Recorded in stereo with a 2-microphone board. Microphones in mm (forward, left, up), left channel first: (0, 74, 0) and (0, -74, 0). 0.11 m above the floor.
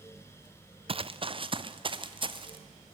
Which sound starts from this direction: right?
Running footsteps, at 0.9 s.